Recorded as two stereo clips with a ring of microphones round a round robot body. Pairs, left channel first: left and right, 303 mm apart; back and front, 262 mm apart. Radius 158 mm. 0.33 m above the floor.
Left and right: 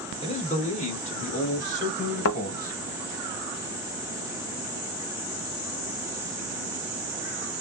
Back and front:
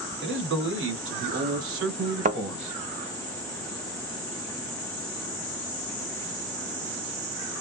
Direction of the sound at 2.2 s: 55° left.